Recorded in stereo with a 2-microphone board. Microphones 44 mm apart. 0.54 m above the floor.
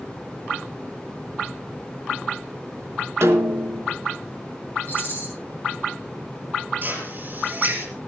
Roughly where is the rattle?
Left.